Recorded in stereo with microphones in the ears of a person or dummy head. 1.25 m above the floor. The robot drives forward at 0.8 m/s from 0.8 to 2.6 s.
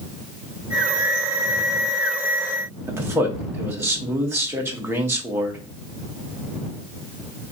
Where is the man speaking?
5° right (ahead or behind), 1.0 m.